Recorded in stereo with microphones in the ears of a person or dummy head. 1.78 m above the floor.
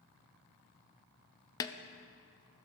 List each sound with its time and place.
1.6 s a snare drum: 20° left (ahead or behind), 0.6 m